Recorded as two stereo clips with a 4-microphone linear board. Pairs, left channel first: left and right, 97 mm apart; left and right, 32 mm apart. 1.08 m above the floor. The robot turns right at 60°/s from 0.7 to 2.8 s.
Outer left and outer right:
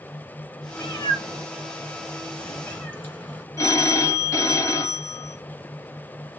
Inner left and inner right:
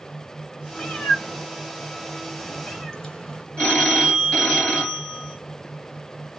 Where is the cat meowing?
30° left (ahead or behind), 1.2 m; by 3.4 s 20° left (ahead or behind), 1.2 m.